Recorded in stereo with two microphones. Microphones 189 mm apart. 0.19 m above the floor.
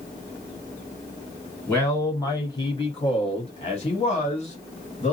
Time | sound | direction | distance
1.7 | a man speaking | 15° left (ahead or behind) | 2 m